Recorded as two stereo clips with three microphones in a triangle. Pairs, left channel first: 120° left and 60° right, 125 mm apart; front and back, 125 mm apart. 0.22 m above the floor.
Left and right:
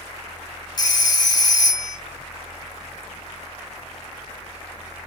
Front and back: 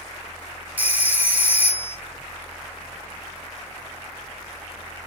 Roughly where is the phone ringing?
Behind left.